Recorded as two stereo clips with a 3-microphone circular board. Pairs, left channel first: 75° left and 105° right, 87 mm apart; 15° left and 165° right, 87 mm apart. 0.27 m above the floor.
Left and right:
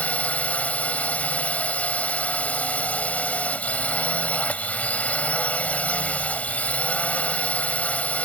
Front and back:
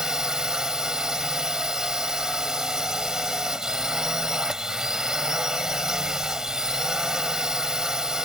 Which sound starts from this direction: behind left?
A drone, at 0.0 s.